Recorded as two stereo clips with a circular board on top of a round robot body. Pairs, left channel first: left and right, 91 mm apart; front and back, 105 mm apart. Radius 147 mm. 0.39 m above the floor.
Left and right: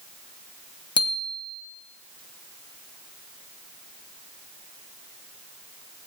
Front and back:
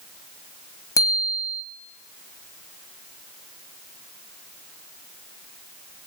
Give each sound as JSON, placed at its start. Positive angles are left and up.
{"t": 1.0, "sound": "a bicycle bell", "azimuth_deg": 60, "distance_m": 2.5}